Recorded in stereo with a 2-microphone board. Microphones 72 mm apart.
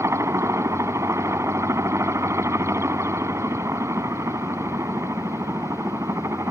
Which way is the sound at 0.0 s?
40° right (ahead or behind).